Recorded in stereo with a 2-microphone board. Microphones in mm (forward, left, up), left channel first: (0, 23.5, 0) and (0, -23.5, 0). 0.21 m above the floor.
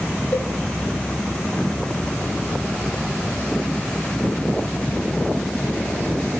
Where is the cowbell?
40° left (ahead or behind), 1.8 m.